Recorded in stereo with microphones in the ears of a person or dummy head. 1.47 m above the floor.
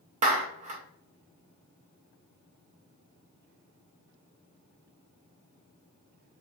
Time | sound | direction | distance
0.2 | a clap | 35° right (ahead or behind) | 0.6 m